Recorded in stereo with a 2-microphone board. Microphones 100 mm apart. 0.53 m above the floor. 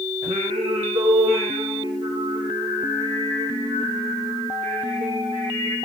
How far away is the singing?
About 9.5 m.